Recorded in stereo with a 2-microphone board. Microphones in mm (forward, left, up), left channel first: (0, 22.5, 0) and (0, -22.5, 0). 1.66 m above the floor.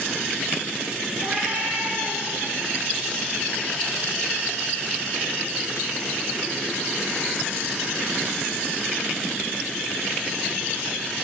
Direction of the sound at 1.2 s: 55° right (ahead or behind).